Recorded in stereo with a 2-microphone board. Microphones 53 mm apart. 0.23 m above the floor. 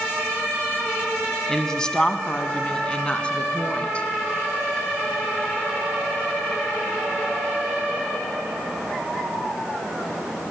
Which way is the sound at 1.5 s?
10° left (ahead or behind).